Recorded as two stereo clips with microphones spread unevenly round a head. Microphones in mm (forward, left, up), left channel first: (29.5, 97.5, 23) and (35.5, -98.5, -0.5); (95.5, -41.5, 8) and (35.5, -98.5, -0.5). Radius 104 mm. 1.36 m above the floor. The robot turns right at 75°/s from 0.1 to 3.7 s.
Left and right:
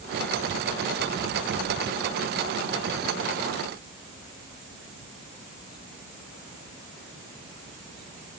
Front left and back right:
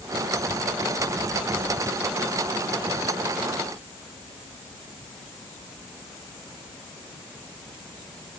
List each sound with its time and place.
Only background noise.